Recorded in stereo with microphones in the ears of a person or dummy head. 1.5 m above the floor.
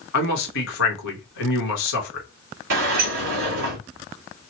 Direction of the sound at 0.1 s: 75° left (ahead or behind).